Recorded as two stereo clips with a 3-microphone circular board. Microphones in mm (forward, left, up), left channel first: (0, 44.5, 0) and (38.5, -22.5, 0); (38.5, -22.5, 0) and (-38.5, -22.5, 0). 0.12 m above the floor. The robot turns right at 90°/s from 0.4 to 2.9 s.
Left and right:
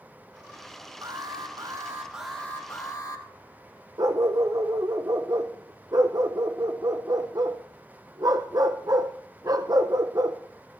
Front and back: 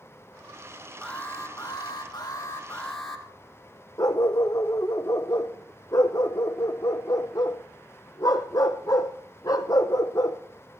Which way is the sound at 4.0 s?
30° right.